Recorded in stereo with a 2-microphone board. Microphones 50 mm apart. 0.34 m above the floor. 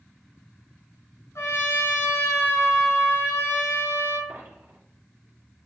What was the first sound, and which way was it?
A trumpet, 75° left (ahead or behind).